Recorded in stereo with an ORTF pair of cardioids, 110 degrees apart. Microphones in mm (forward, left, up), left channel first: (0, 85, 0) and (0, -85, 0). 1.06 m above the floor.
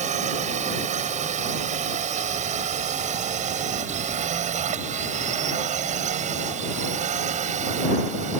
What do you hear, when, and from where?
0.0 s a drone: 50° right